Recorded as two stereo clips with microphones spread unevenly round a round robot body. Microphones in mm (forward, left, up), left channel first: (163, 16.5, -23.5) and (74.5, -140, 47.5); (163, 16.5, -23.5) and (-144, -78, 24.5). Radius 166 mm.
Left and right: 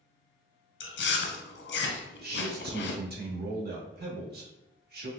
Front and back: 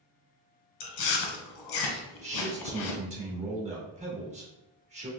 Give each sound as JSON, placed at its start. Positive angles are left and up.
{"t": 0.8, "sound": "chewing", "azimuth_deg": 45, "distance_m": 0.7}
{"t": 2.2, "sound": "a man speaking", "azimuth_deg": -95, "distance_m": 1.1}